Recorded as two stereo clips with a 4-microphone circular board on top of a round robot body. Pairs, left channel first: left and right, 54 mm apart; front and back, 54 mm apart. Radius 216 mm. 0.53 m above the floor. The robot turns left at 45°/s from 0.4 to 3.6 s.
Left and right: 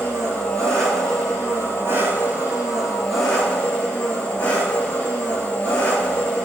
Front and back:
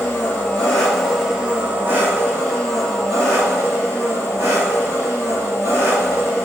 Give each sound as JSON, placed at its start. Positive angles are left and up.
{"t": 0.0, "sound": "an engine running", "azimuth_deg": -60, "distance_m": 7.5}